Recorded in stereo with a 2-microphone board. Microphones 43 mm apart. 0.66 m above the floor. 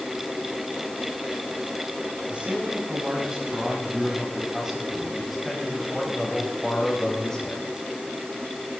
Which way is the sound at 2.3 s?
25° right (ahead or behind).